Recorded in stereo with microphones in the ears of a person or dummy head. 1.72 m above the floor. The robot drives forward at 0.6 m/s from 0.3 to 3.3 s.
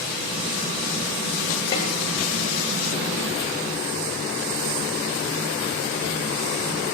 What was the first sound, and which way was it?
A snare drum, 30° left (ahead or behind).